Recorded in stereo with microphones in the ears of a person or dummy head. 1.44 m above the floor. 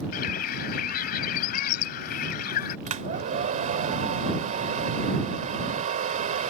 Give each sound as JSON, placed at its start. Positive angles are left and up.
{"t": 0.1, "sound": "a bird", "side_deg": 50}
{"t": 2.9, "sound": "a hair dryer", "side_deg": -45}